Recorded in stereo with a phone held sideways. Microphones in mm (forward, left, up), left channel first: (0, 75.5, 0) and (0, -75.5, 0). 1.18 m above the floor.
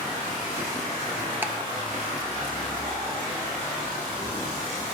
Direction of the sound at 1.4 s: 15° right (ahead or behind).